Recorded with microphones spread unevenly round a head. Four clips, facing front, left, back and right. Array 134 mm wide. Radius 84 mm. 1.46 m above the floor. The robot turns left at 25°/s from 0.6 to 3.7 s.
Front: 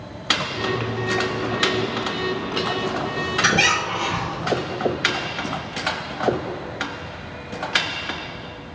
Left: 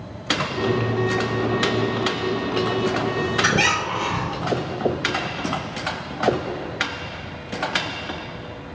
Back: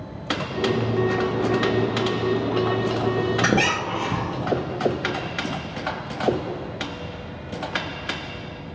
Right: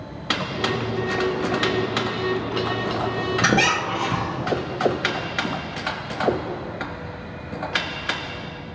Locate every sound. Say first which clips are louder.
3.4 s a squeak: right 4 dB, even; 145° right, 0.6 m; by 4.5 s 150° right, 0.6 m